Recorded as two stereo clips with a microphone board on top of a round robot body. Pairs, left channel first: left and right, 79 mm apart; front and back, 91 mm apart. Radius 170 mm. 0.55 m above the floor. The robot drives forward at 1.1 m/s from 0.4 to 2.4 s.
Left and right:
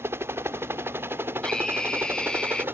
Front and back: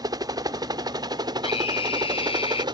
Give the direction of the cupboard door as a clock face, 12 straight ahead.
I don't hear a cupboard door.